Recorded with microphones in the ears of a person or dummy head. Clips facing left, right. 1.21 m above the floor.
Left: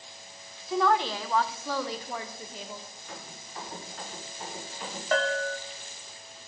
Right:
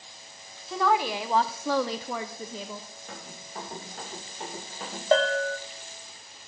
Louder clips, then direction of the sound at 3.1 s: Right 2 dB; 35° right (ahead or behind).